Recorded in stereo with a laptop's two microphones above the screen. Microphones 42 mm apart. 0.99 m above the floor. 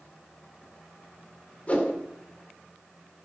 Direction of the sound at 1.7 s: 35° left (ahead or behind).